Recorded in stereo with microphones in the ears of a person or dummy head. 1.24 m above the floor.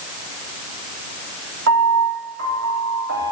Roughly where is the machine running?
No machine running in this recording.